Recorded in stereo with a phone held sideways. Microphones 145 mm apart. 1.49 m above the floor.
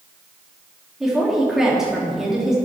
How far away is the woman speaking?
About 2.5 m.